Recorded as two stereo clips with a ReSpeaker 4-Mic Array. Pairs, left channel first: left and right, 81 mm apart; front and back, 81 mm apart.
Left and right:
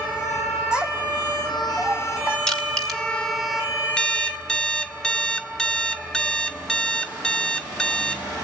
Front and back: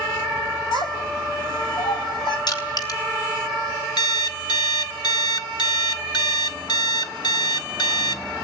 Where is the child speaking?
10° right, 3 m; by 2.4 s 15° right, 4.5 m.